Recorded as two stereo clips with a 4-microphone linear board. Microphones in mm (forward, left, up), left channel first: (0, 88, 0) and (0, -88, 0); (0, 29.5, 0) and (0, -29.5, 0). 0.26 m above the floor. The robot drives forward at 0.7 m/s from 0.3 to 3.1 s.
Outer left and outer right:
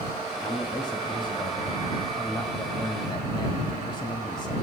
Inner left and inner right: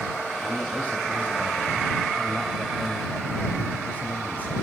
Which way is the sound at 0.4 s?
25° left (ahead or behind).